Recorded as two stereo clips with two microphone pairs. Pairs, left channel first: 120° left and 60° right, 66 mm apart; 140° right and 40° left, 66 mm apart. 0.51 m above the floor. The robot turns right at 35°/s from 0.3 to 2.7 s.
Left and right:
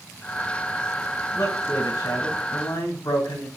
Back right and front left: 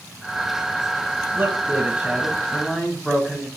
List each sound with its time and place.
1.3 s a man speaking: 85° left, 2.5 m; by 3.5 s 130° left, 2.5 m